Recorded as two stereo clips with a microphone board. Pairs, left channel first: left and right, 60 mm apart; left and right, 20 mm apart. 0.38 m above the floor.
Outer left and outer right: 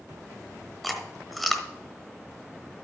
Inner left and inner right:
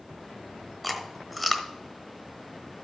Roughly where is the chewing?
Centre.